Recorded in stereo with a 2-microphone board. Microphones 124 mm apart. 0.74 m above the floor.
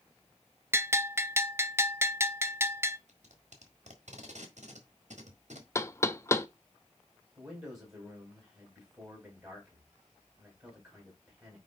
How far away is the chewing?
I don't hear chewing.